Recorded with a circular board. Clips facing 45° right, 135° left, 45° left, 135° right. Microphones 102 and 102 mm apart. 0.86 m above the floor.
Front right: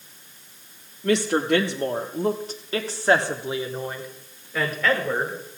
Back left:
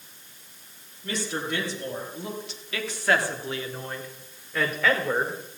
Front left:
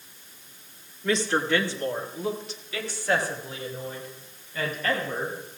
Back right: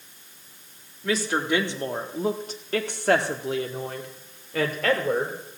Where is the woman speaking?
50° right, 1.6 m; by 5.4 s 140° right, 2.5 m.